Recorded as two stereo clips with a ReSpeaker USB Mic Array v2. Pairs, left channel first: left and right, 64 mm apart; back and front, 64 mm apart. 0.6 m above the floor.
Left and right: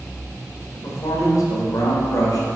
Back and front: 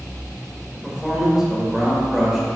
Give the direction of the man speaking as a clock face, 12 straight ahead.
9 o'clock.